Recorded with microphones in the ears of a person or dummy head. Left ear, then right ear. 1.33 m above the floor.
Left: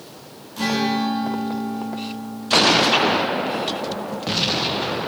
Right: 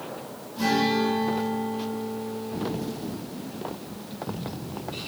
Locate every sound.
0.6 s a guitar: 55° left (ahead or behind), 3 m